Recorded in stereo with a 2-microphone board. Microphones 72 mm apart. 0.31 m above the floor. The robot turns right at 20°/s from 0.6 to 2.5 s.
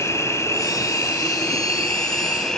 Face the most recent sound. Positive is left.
turn(degrees=170)